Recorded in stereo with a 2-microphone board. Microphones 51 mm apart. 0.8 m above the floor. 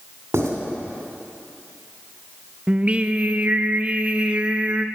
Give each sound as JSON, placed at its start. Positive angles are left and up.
{"t": 0.3, "sound": "writing", "side_deg": -75, "distance_m": 2.5}
{"t": 2.7, "sound": "singing", "side_deg": -25, "distance_m": 0.6}